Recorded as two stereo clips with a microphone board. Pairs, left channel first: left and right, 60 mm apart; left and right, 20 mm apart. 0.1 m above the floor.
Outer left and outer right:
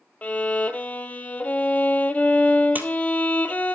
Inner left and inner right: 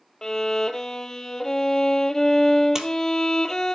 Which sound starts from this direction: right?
A splash, at 2.8 s.